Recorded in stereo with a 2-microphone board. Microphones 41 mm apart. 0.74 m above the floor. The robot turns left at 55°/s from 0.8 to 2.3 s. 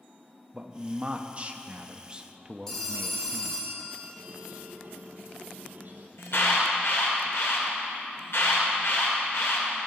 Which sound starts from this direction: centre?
A phone ringing, at 2.7 s.